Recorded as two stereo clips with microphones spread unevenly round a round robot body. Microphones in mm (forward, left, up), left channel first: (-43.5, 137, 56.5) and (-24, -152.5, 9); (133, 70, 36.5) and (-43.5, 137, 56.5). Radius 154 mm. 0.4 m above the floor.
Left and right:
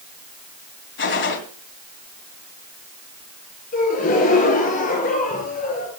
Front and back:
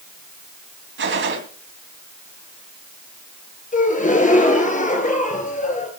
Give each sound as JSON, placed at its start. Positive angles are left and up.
{"t": 1.0, "sound": "a gunshot", "azimuth_deg": 145, "distance_m": 3.0}
{"t": 3.7, "sound": "a gasp", "azimuth_deg": 30, "distance_m": 3.0}